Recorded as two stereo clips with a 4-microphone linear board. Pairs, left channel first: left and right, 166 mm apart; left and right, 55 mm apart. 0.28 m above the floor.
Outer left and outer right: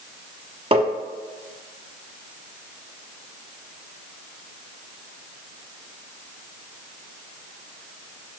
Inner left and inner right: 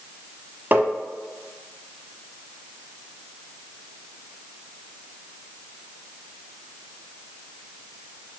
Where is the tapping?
35° right (ahead or behind), 1.1 m.